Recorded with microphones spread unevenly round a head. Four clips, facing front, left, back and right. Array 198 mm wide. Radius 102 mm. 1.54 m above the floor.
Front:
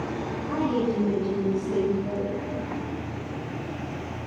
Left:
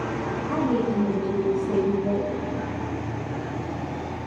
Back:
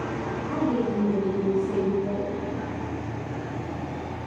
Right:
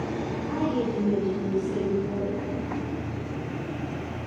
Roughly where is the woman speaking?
Left.